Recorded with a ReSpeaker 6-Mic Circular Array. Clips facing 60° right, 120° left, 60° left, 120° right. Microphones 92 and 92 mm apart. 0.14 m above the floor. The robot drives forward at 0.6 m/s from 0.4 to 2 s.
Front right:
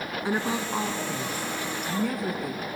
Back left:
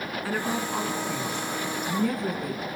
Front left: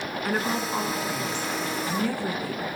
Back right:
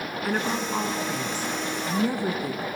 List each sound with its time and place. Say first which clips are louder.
0.2 s a woman speaking: front right 1 dB, even; 30° right, 1.6 m; by 2.6 s 145° right, 1.5 m